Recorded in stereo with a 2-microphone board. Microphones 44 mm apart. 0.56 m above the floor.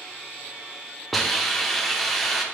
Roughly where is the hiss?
Centre.